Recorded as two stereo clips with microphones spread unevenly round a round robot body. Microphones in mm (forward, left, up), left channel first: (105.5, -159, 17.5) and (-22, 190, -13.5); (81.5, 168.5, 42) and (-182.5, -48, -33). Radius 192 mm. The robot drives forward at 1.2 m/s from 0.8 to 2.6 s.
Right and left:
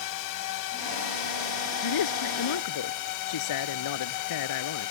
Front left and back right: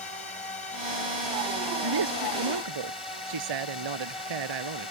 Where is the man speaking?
105° right; by 4.9 s 115° right.